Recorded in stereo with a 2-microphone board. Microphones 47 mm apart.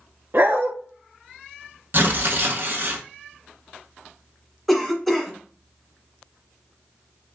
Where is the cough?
Centre (ahead or behind), 1.2 m.